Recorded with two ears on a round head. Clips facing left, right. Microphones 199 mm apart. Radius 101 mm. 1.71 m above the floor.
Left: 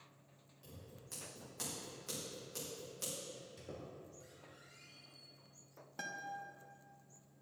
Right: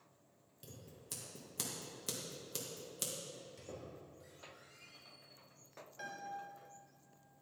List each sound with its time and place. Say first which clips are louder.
0.6 s scissors: right 1 dB; 50° right (ahead or behind), 2 m
3.3 s a squeak: even; 5° left (ahead or behind), 2.5 m
6.0 s a guitar: even; 70° left (ahead or behind), 1.1 m